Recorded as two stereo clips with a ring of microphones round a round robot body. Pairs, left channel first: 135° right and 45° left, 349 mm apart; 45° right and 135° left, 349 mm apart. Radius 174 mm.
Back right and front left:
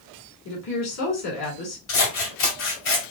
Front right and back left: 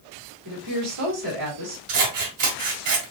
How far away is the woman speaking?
About 3 m.